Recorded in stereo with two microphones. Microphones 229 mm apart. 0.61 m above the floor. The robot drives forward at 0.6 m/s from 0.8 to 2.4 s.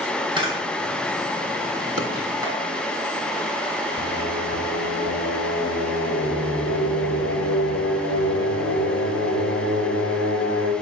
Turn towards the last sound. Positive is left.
turn(degrees=75)  # may be behind; listen again after turning